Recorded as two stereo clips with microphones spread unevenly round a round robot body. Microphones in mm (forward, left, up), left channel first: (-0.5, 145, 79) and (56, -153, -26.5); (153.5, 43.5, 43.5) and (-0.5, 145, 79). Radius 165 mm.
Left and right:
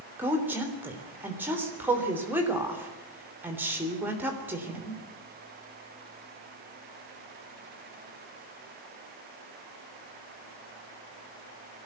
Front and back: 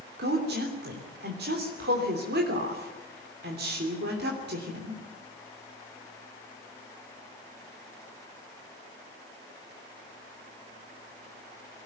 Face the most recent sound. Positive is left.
turn(degrees=-160)